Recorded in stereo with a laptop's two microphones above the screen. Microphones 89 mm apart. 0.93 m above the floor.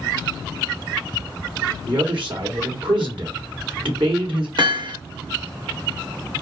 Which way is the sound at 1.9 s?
70° right (ahead or behind).